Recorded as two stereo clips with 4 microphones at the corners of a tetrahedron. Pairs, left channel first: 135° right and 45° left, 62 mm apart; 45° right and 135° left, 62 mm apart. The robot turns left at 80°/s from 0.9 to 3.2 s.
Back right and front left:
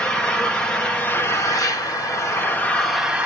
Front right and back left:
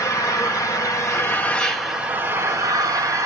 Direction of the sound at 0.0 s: 60° right.